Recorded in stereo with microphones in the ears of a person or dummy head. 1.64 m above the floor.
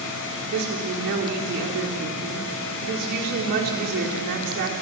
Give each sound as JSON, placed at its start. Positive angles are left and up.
{"t": 0.5, "sound": "a woman speaking", "side_deg": -55, "distance_m": 4.5}